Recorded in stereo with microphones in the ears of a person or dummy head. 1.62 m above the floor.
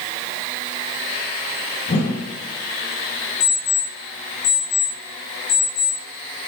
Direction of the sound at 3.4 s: 65° left (ahead or behind).